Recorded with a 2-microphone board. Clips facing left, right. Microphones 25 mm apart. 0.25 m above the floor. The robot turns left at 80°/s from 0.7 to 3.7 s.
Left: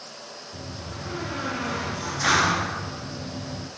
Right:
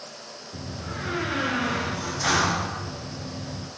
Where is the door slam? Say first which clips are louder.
Right 4 dB; 70° right, 3.5 m; by 3.7 s 50° left, 3.5 m.